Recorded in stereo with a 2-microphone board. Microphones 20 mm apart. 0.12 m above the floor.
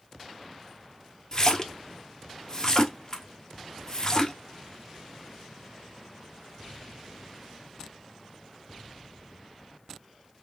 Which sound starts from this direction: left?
A splash, at 1.3 s.